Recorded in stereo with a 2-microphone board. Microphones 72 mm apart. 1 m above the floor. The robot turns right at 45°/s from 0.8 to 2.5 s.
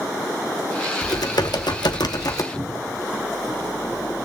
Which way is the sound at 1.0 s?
60° left.